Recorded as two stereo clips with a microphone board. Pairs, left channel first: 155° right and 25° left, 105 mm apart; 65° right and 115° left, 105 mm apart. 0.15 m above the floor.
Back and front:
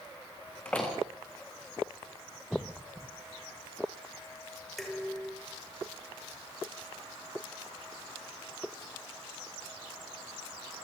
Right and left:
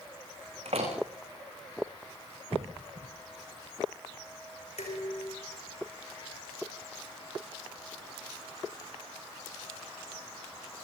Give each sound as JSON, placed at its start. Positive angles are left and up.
{"t": 0.7, "sound": "a door slam", "azimuth_deg": 125, "distance_m": 8.5}
{"t": 2.5, "sound": "a cough", "azimuth_deg": 105, "distance_m": 4.0}
{"t": 4.8, "sound": "dishes clattering", "azimuth_deg": -70, "distance_m": 8.0}